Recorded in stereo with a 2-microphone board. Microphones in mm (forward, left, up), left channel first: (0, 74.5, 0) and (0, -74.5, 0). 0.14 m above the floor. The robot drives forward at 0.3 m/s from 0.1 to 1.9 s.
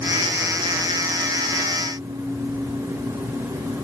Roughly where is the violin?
No violin in this recording.